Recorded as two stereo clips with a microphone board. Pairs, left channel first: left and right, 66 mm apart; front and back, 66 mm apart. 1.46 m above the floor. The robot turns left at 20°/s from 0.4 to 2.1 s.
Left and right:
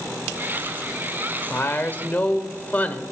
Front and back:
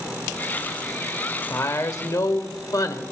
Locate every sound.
1.5 s a woman speaking: 40° left, 1.0 m; by 3.0 s 30° left, 1.0 m